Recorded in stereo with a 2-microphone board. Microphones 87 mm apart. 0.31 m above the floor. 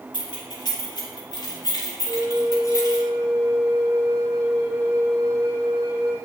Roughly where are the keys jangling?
Left.